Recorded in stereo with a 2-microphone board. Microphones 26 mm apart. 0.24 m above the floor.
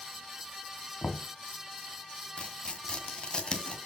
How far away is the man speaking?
No man speaking in this recording.